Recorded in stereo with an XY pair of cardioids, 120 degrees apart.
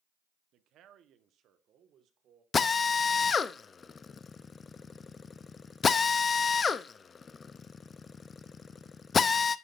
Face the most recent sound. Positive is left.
turn(degrees=35)